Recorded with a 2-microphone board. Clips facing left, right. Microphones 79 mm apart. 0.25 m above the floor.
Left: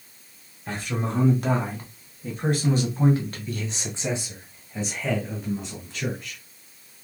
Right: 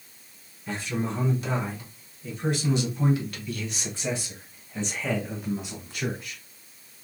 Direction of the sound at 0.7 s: 55° left (ahead or behind).